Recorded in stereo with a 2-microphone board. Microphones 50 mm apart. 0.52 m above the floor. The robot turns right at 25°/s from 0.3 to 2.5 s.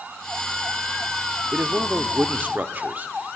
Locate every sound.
1.5 s a man speaking: 35° right (ahead or behind), 0.8 m